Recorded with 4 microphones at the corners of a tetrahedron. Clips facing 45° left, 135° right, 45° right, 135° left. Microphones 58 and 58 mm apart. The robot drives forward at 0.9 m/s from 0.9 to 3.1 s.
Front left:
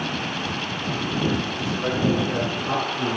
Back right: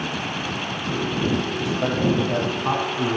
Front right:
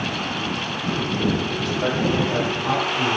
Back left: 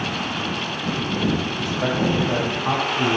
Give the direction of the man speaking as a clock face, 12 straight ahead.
5 o'clock.